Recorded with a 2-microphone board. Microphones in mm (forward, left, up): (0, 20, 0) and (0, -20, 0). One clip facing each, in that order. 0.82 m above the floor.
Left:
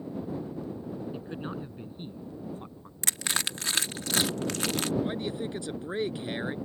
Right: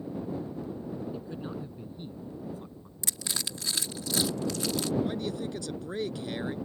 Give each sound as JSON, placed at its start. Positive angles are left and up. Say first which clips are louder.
{"t": 1.1, "sound": "a man speaking", "louder": "left 1 dB", "side_deg": 40}
{"t": 3.0, "sound": "crushing", "louder": "left 5 dB", "side_deg": 75}
{"t": 5.0, "sound": "a man speaking", "louder": "even", "side_deg": 25}